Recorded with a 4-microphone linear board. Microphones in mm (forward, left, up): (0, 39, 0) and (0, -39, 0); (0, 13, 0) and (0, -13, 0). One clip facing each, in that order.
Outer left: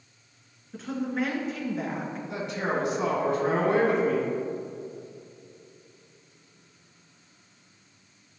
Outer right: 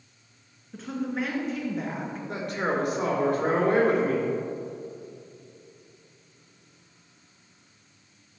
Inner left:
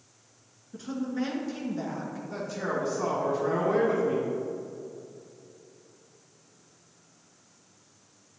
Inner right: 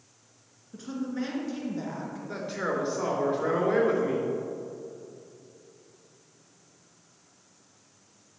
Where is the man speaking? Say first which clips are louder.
Outer right 1 dB, inner right 1 dB; 50° right (ahead or behind), 3.5 m.